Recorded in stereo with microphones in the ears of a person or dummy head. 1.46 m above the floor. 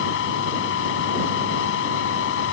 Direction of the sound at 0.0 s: 75° left (ahead or behind).